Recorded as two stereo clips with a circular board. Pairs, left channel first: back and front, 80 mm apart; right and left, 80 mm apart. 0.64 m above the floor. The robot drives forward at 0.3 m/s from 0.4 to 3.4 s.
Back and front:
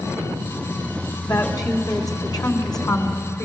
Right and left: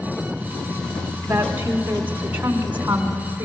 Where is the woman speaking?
150° left, 2.0 m; by 3.5 s 160° left, 2.5 m.